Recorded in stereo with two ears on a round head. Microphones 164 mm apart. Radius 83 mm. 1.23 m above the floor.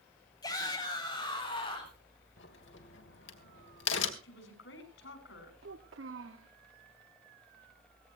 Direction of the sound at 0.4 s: 20° left (ahead or behind).